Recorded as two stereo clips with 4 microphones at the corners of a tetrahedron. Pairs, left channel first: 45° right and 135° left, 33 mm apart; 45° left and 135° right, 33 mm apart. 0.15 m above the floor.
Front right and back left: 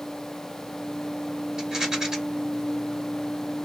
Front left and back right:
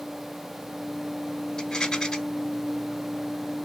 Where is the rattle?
90° left, 1.0 m.